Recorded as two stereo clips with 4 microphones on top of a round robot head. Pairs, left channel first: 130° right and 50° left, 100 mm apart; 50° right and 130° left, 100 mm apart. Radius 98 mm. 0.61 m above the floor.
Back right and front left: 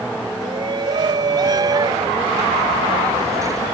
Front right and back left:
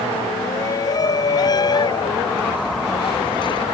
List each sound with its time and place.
0.4 s a shout: 5° left; by 3.6 s 10° right